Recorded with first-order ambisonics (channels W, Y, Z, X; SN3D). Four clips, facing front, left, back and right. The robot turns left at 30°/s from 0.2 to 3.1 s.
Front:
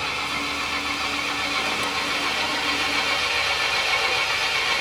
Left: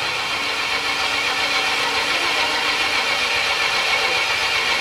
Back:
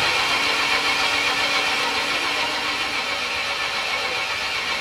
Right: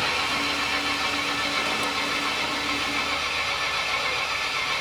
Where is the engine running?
165° left, 1.5 m; by 4.8 s 75° left, 1.5 m.